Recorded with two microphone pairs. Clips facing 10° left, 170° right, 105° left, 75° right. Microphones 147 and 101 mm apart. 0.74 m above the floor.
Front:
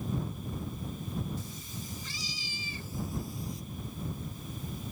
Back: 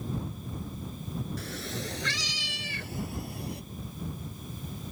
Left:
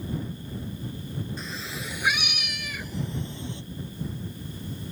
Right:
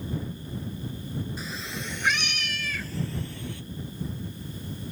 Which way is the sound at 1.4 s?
165° right.